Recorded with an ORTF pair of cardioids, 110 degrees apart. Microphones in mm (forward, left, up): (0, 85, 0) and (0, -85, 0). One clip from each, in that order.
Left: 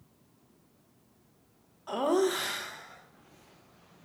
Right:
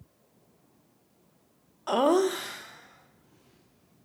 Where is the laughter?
45° right, 0.6 m; by 4.1 s 75° left, 2 m.